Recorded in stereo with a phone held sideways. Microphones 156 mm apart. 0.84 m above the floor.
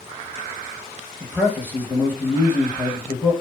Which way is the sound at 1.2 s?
10° left (ahead or behind).